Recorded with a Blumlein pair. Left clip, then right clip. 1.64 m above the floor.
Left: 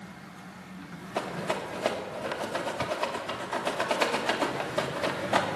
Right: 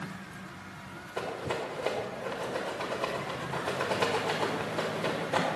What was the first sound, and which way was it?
A rattle, 30° left.